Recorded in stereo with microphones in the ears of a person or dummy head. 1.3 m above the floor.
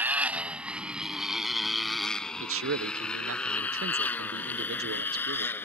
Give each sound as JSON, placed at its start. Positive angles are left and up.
{"t": 0.0, "sound": "a motorcycle", "side_deg": -10}
{"t": 2.4, "sound": "a man speaking", "side_deg": -60}